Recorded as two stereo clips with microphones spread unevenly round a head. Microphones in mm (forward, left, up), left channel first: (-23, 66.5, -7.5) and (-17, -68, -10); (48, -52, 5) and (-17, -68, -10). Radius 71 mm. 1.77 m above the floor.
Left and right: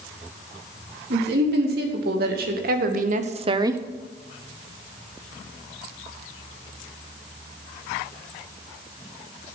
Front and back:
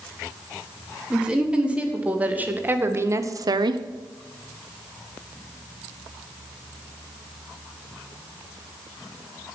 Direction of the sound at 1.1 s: 90° right.